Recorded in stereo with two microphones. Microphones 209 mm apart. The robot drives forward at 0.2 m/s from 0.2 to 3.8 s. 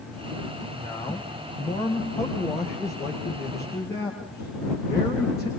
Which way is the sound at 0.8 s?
15° left (ahead or behind).